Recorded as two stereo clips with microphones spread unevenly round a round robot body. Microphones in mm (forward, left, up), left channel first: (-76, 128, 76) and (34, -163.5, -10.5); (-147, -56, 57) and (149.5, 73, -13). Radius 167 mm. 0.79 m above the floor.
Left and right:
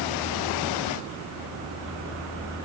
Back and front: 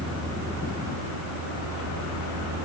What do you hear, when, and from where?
Only background noise.